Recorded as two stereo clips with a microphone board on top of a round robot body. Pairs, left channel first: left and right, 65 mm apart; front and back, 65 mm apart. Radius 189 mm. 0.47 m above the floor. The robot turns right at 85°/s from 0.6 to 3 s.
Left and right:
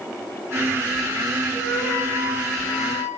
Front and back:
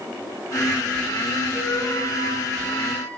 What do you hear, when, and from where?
1.5 s a flute: 20° right, 3 m; by 3.1 s 105° left, 3 m